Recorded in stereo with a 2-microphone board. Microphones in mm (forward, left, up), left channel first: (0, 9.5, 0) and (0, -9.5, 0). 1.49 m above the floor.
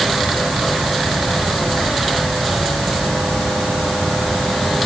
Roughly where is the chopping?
No chopping in this recording.